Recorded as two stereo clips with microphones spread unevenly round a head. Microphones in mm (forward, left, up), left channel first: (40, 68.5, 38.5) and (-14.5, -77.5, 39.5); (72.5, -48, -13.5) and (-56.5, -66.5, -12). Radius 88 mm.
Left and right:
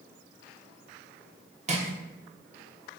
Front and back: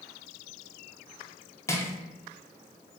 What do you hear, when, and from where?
1.7 s crushing: 60° right, 0.7 m